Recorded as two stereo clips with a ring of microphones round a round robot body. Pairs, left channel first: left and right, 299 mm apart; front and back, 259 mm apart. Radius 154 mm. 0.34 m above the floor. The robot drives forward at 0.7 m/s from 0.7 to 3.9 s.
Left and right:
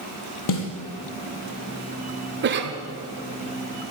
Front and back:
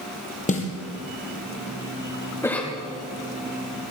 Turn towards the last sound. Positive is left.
turn(degrees=-140)